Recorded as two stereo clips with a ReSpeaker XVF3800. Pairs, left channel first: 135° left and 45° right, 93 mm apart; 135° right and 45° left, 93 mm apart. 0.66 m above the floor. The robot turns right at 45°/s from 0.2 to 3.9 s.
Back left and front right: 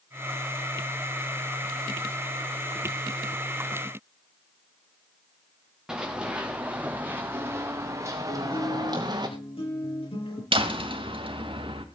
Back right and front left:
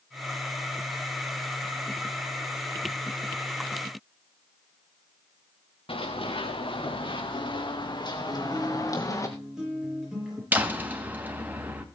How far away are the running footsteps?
About 3 m.